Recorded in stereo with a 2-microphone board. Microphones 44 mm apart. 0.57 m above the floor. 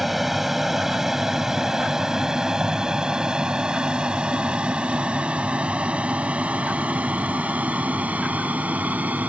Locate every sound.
0.0 s an aircraft: 5° right (ahead or behind); by 9.3 s 35° right (ahead or behind)